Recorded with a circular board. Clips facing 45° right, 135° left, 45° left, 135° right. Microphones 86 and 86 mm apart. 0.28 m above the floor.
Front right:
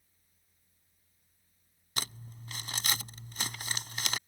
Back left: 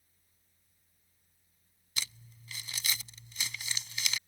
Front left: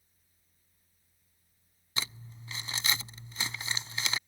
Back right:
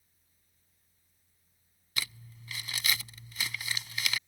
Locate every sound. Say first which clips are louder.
2.0 s crumpling: front right 4 dB, front left 1 dB; 15° right